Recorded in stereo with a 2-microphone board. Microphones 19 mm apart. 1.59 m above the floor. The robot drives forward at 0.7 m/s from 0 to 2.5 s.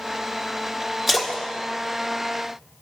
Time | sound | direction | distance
1.1 | a splash | 5° right (ahead or behind) | 1.3 m